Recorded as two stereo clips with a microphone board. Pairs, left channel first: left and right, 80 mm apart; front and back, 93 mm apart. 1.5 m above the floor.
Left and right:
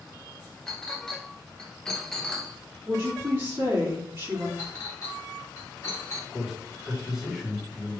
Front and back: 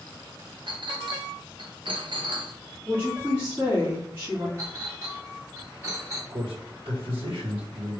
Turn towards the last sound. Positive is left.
turn(degrees=-175)